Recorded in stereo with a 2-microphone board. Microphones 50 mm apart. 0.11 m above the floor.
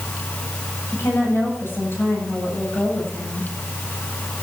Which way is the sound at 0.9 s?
50° left (ahead or behind).